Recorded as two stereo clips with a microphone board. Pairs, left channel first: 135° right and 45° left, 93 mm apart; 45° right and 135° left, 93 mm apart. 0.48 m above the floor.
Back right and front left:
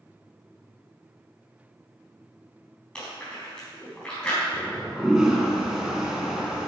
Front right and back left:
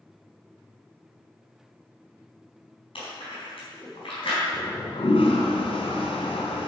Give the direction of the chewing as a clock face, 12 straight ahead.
2 o'clock.